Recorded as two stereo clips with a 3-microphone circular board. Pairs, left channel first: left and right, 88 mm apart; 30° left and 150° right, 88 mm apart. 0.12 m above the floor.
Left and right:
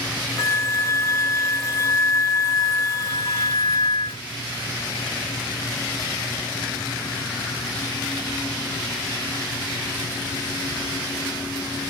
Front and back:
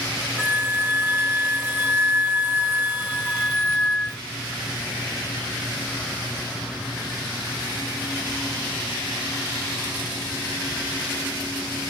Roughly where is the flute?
Behind left.